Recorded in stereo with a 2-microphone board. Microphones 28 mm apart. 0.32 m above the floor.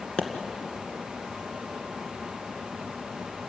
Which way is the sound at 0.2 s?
40° left (ahead or behind).